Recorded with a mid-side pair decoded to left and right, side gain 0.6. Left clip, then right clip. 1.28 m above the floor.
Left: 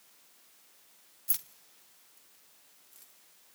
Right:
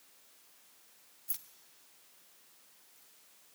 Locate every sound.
1.3 s keys jangling: 35° left, 0.6 m; by 3.1 s 50° left, 3 m